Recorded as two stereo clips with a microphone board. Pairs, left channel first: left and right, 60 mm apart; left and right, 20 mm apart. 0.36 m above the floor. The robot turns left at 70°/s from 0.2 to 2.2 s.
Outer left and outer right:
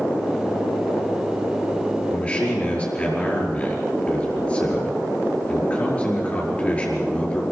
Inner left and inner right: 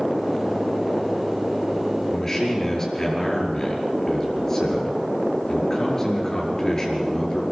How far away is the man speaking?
About 5 m.